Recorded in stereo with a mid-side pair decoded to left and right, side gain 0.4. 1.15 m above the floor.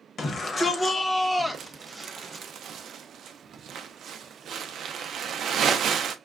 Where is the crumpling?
65° right, 0.5 m.